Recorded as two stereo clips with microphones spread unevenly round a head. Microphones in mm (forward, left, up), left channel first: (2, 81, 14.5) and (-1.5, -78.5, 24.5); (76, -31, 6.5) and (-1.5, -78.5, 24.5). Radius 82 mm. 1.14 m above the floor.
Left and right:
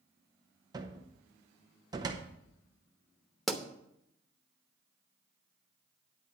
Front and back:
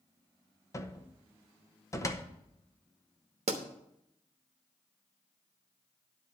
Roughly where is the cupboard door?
Ahead.